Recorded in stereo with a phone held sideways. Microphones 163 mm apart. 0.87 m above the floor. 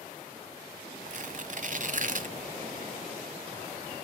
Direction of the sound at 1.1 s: 55° right (ahead or behind).